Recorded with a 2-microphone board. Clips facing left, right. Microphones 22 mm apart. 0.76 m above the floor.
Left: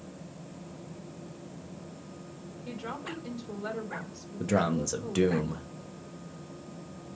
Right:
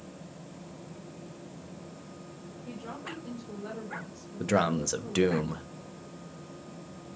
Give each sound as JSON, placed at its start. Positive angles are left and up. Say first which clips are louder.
{"t": 2.6, "sound": "a woman speaking", "louder": "left 3 dB", "side_deg": 55, "distance_m": 3.0}
{"t": 4.4, "sound": "a man speaking", "louder": "right 1 dB", "side_deg": -15, "distance_m": 0.6}